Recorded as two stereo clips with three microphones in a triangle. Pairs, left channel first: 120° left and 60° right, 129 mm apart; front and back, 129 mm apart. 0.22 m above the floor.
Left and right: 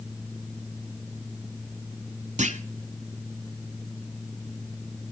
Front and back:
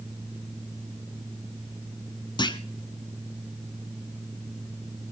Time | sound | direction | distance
2.4 | a clunk | 50° right | 0.9 m